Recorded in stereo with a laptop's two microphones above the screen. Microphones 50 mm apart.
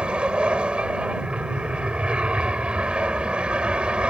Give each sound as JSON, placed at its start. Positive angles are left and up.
{"t": 0.0, "sound": "an aircraft", "side_deg": -20}